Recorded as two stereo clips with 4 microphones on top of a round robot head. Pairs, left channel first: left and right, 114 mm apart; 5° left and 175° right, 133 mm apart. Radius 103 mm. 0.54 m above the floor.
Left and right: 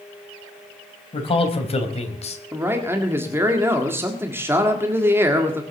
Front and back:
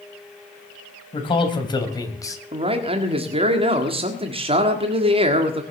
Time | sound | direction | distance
1.1 | a man speaking | 55° left | 3.5 m
2.5 | a man speaking | 155° right | 1.7 m